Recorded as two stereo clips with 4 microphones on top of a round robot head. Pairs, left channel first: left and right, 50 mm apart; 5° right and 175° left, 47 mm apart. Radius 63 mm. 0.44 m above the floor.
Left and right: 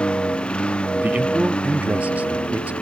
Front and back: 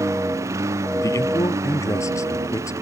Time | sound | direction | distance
0.0 | a lawn mower | 160° left | ?
1.0 | a man speaking | 25° right | ?